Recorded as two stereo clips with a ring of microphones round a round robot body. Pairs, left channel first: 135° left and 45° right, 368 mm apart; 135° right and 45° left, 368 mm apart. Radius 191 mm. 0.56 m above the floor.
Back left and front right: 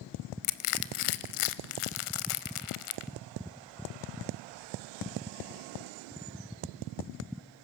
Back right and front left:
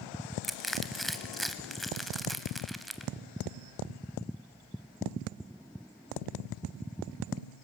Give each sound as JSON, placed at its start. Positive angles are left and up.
{"t": 0.4, "sound": "crushing", "azimuth_deg": 135, "distance_m": 0.7}